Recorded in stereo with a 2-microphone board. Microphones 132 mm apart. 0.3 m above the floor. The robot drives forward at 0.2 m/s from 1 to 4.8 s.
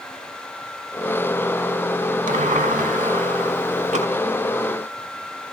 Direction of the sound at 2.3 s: 80° right.